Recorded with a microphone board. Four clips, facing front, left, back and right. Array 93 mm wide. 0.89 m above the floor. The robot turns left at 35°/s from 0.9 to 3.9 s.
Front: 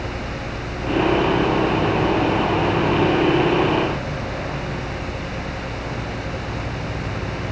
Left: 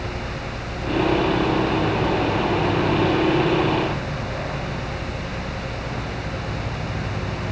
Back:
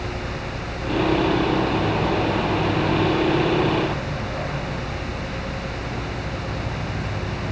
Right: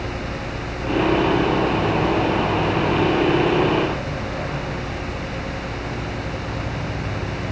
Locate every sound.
Only background noise.